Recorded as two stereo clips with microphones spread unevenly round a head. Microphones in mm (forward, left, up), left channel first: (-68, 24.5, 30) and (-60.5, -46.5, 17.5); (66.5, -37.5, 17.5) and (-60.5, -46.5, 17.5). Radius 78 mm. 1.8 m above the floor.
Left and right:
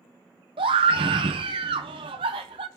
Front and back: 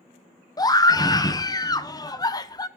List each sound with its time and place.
0.6 s a scream: 55° right, 1.2 m